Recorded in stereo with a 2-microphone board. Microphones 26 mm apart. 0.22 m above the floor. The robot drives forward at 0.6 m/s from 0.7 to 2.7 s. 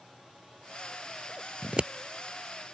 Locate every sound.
1.6 s scissors: 45° right (ahead or behind); by 1.9 s 35° right (ahead or behind)